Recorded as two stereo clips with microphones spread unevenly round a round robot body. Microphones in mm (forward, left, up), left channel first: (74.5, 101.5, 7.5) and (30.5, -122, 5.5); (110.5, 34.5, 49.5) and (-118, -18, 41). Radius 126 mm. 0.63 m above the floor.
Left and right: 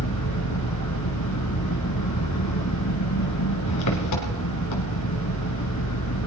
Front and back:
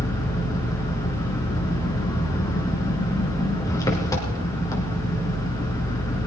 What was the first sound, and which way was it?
An engine running, 90° left.